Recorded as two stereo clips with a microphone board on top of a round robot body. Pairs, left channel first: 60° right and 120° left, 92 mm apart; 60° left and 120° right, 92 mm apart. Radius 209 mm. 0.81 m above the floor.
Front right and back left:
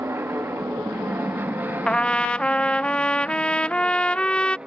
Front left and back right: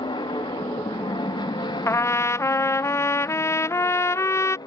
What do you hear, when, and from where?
0.0 s an aircraft: 60° left; by 4.7 s 40° left
1.9 s a trumpet: 15° left